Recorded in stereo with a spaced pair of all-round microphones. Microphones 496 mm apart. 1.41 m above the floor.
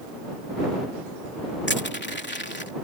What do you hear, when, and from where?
1.7 s crushing: 20° left (ahead or behind)